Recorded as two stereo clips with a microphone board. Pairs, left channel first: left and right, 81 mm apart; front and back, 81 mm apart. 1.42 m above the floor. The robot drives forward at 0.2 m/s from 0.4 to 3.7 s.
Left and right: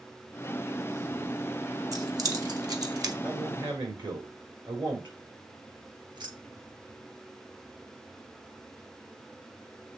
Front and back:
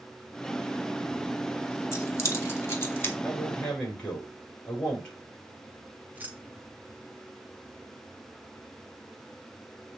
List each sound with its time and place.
1.9 s keys jangling: 50° right, 1.7 m; by 3.1 s 60° right, 1.5 m
3.2 s a man speaking: 75° right, 4 m
6.1 s keys jangling: 110° right, 1.1 m